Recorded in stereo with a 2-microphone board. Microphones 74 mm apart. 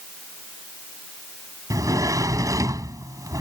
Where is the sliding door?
50° right (ahead or behind).